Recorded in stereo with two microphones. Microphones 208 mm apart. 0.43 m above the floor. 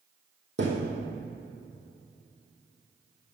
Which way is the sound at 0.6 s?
65° right (ahead or behind).